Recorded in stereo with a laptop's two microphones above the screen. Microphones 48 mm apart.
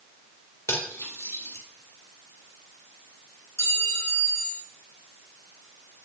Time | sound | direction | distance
0.7 | cutlery clinking | 75° left (ahead or behind) | 2.5 m
3.6 | a clink | 80° left | 3.5 m